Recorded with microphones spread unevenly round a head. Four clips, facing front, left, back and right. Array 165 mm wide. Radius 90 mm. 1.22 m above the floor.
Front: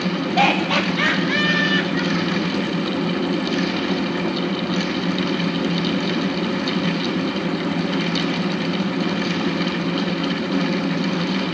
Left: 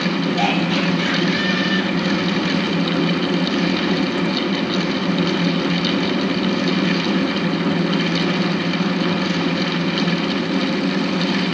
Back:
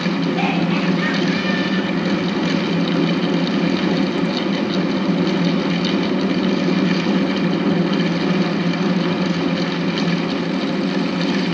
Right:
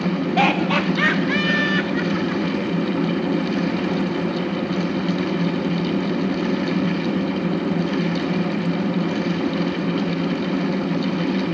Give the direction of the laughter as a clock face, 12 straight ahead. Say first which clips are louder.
Even, front 1 dB; 2 o'clock.